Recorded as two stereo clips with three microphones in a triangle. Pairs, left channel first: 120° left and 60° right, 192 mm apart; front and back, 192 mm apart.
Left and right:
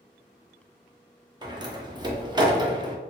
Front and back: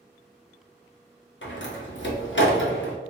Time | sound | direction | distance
1.4 | a door slam | 10° left | 0.7 m